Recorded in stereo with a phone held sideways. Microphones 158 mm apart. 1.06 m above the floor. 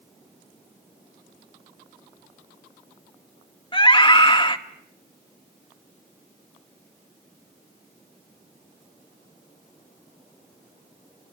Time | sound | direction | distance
3.7 | a scream | 30° left (ahead or behind) | 2 m